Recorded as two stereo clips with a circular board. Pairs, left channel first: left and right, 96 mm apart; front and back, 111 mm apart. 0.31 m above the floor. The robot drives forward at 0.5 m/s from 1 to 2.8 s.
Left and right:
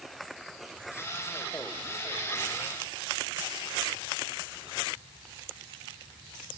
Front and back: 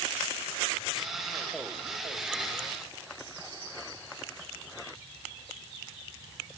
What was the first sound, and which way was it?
Only background noise.